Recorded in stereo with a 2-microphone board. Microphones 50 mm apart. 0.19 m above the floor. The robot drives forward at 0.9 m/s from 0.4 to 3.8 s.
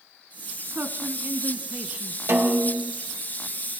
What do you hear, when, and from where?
0.6 s a man speaking: 45° right (ahead or behind), 1.5 m; by 2.2 s 30° right (ahead or behind), 2 m
2.3 s a snare drum: 60° right (ahead or behind), 3.5 m; by 2.9 s 65° right (ahead or behind), 3 m